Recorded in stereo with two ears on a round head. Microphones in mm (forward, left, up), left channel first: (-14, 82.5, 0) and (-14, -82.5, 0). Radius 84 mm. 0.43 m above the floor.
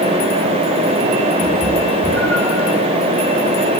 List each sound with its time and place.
1.4 s a cat meowing: 10° left (ahead or behind), 6 m